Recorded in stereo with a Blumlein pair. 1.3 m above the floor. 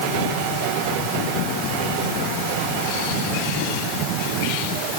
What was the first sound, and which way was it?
Only background noise.